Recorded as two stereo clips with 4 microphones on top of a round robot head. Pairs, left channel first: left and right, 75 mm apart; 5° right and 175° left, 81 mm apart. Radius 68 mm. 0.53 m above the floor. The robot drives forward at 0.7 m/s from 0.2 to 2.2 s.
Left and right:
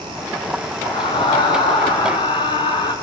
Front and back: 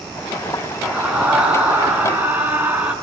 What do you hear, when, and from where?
0.8 s a scream: 95° left, 5.5 m; by 2.9 s 105° left, 5.5 m